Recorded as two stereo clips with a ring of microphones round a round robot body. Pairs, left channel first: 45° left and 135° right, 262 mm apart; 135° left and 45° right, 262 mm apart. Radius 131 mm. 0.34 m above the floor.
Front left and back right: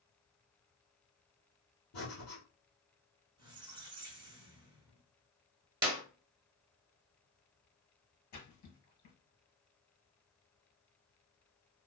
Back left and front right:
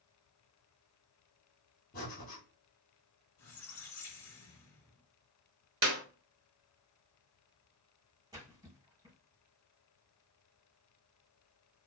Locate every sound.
1.9 s breathing: 80° left, 1.9 m
3.4 s a squeak: 150° left, 0.9 m
5.8 s a clap: 85° right, 0.9 m
8.3 s a splash: 30° left, 2 m